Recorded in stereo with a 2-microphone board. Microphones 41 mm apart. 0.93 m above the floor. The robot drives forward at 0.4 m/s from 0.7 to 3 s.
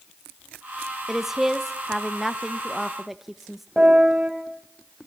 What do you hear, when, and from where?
1.1 s a woman speaking: 5° right (ahead or behind), 0.7 m
3.8 s a piano: 10° right (ahead or behind), 4.5 m